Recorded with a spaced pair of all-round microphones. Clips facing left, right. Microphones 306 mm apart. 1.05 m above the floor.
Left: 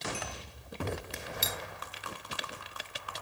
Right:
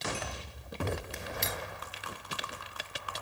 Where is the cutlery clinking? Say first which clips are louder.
Right 2 dB; 5° left (ahead or behind), 0.6 m.